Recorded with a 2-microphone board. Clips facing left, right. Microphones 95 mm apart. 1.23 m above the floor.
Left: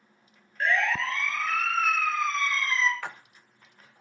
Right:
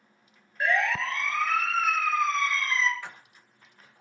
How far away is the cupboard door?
I don't hear a cupboard door.